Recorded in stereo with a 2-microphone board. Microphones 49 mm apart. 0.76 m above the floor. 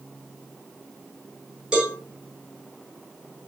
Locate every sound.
1.7 s a cowbell: 15° right (ahead or behind), 7 m